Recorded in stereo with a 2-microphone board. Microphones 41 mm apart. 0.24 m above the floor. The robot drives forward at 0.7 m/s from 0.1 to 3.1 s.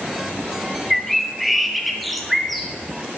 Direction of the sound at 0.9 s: Centre (ahead or behind).